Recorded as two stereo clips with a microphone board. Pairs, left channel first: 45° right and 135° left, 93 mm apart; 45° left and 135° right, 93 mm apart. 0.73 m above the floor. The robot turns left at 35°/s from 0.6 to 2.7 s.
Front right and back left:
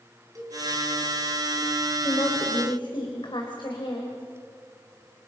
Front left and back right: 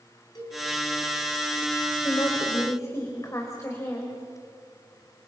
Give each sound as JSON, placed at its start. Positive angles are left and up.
{"t": 0.3, "sound": "a cowbell", "azimuth_deg": 85, "distance_m": 5.0}
{"t": 2.0, "sound": "a woman speaking", "azimuth_deg": 10, "distance_m": 3.5}